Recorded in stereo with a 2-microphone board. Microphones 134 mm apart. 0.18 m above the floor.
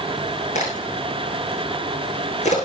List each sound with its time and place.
0.6 s a crack: 60° left (ahead or behind), 6.5 m